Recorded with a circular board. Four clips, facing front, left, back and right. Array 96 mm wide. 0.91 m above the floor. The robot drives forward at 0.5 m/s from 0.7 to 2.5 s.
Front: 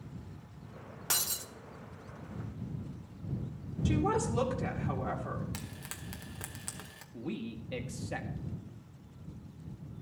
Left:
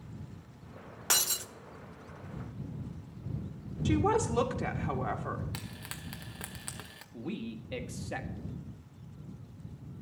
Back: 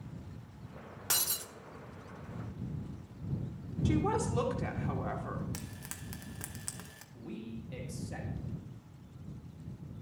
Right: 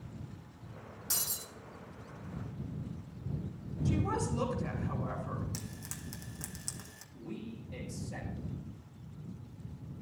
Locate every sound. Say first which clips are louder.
1.1 s breaking glass: left 12 dB, front 1 dB; 90° left, 0.6 m; by 1.5 s 110° left, 0.6 m
3.9 s a woman speaking: left 6 dB, front 1 dB; 95° left, 2.0 m
5.5 s frying: left 1 dB, front 1 dB; 80° left, 0.8 m
7.1 s a man speaking: left 5 dB, front 4 dB; 60° left, 1.4 m